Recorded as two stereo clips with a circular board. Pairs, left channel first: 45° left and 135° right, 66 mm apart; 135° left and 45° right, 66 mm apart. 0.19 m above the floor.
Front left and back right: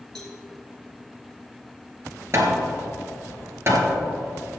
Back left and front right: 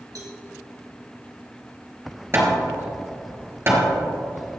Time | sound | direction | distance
0.1 | a cowbell | 35° right | 3.5 m
2.3 | hammering | 90° right | 2.5 m